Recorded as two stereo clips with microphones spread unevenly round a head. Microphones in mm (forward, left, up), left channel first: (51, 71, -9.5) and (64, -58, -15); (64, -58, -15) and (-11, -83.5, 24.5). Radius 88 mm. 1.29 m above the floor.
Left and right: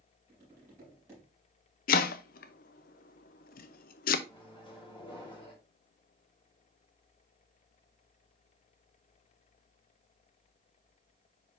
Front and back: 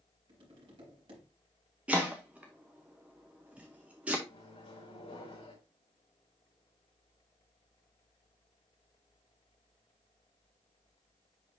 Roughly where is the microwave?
Ahead left.